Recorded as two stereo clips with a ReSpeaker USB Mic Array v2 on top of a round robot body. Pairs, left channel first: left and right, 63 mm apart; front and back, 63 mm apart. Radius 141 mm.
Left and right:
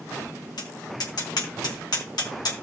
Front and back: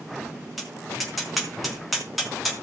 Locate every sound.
0.6 s tapping: 90° left, 3.5 m